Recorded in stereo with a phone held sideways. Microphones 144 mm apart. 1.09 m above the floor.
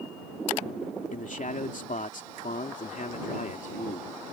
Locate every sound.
1.1 s a man speaking: 65° left (ahead or behind)